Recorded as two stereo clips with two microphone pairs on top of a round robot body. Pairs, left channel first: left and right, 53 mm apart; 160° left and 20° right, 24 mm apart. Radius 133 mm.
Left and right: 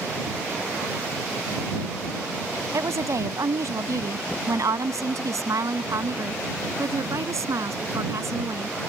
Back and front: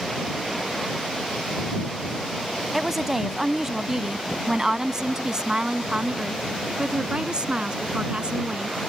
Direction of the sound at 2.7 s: 100° right.